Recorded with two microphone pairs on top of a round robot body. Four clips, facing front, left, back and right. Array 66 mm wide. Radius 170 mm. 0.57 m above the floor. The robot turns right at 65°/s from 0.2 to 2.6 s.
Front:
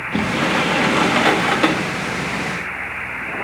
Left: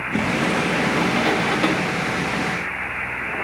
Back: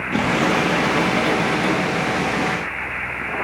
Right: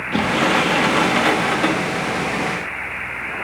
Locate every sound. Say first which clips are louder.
0.1 s a sliding door: right 4 dB, even; 100° right, 1.6 m; by 1.9 s 15° left, 1.6 m